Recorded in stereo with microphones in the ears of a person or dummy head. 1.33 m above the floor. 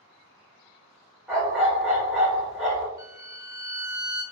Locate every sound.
1.3 s a dog barking: 5° right (ahead or behind), 1.0 m
3.0 s a violin: 20° right (ahead or behind), 0.8 m